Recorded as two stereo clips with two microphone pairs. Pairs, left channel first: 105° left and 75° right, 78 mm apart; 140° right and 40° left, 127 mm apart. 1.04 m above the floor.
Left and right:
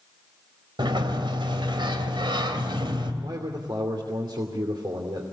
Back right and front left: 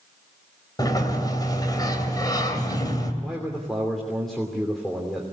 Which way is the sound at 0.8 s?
80° right.